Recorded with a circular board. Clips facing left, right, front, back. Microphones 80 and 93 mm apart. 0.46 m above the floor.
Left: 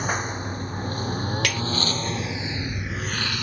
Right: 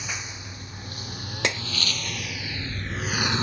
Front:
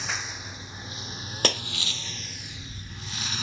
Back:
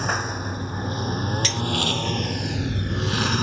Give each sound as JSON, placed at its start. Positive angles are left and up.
{"t": 0.0, "sound": "a lawn mower", "azimuth_deg": 135}
{"t": 1.4, "sound": "breaking glass", "azimuth_deg": -25}